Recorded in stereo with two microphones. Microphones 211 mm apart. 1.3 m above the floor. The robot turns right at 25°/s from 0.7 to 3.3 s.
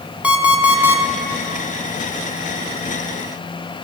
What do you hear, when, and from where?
0.2 s an alarm clock: 5° right (ahead or behind), 1.0 m; by 1.0 s 10° right (ahead or behind), 1.0 m